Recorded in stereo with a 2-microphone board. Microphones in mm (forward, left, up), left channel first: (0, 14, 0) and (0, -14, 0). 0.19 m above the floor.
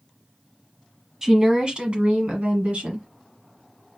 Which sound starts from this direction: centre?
A woman speaking, at 1.2 s.